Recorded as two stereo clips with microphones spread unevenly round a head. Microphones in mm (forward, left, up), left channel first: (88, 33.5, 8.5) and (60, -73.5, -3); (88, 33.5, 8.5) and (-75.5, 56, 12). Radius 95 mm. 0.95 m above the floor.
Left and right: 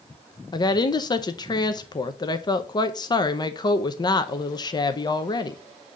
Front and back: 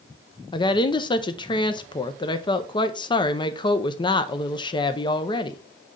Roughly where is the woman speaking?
Ahead left.